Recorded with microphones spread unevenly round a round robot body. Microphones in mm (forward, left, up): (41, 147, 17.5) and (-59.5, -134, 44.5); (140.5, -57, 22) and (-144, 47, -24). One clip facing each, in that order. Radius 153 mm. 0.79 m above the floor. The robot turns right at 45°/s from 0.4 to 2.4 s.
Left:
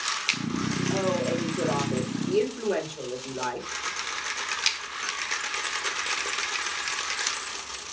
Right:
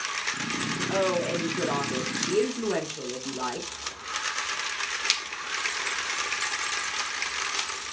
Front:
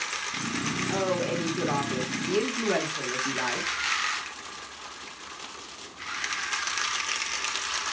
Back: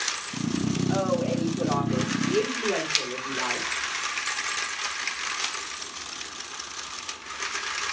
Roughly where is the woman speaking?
Right.